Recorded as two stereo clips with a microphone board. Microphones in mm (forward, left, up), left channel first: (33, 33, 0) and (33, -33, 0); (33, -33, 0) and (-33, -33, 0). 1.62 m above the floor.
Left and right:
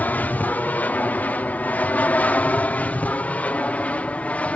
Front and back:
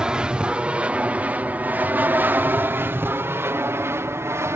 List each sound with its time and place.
0.0 s an aircraft: 115° left; by 4.6 s 150° left